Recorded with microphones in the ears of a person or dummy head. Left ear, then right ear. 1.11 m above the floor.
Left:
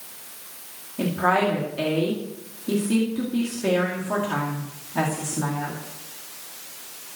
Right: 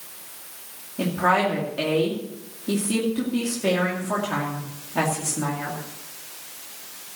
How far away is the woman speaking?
About 2.5 m.